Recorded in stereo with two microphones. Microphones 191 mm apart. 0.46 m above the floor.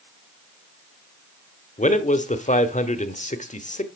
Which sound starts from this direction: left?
A man speaking, at 1.8 s.